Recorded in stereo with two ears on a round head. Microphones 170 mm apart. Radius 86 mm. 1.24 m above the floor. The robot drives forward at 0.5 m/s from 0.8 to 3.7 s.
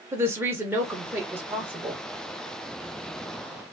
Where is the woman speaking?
10° right (ahead or behind), 1.0 m.